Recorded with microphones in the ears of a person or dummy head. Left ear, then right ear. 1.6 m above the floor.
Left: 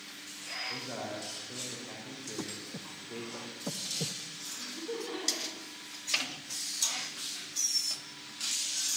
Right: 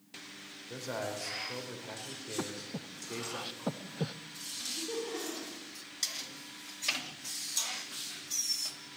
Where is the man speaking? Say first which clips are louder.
Even; 65° right (ahead or behind), 5 m.